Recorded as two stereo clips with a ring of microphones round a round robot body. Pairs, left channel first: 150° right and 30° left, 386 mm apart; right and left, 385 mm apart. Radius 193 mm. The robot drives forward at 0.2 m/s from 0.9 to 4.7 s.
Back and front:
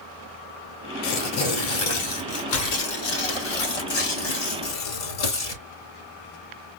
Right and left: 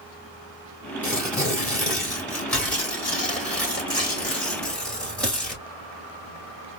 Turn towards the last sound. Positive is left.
turn(degrees=-175)